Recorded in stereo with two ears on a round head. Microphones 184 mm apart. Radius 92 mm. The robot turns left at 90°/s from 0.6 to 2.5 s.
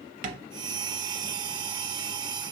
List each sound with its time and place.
0.2 s tapping: 40° right (ahead or behind), 0.5 m